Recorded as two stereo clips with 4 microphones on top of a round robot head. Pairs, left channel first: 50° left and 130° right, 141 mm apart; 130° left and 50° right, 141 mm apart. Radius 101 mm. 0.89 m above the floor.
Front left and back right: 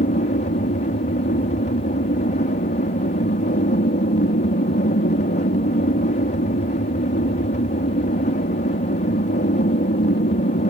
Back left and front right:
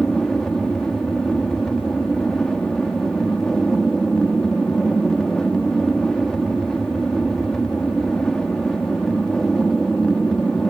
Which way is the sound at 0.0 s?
45° left.